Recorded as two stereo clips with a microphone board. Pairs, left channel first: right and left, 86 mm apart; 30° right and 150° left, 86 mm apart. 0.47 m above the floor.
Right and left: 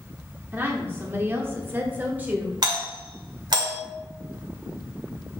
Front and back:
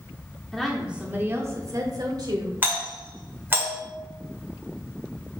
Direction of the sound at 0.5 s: 50° left.